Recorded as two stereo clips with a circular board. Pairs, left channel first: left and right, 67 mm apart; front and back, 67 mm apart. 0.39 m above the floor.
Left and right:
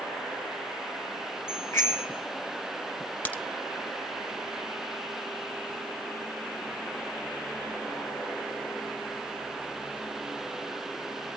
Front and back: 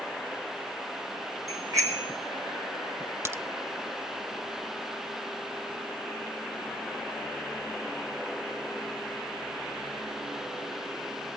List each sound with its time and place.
1.5 s a bicycle bell: 140° left, 5 m
3.2 s a crack: 150° left, 0.7 m